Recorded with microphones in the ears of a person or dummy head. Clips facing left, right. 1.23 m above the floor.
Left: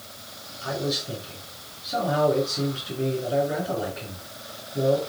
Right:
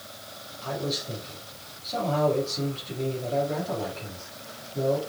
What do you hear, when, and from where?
0.6 s a man speaking: 10° left (ahead or behind), 7 m